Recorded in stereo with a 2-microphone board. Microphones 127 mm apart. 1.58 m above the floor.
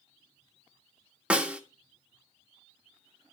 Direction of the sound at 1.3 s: 10° right (ahead or behind).